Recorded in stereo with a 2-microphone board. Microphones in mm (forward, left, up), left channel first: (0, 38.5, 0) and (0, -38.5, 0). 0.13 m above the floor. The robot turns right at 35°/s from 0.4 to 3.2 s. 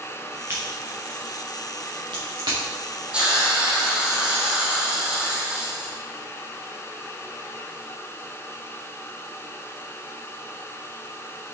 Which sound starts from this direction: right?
A crack, at 0.5 s.